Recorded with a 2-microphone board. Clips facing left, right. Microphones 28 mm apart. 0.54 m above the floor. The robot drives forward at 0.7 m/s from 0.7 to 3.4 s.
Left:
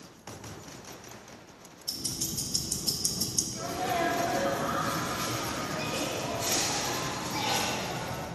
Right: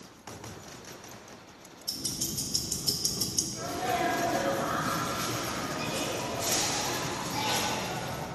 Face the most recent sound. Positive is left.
turn(degrees=15)  # may be behind; listen again after turning